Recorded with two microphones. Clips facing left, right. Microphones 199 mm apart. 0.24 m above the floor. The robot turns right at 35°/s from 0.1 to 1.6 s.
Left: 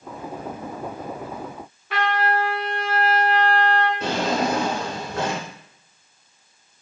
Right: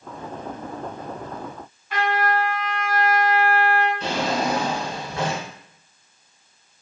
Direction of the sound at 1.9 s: 70° left (ahead or behind).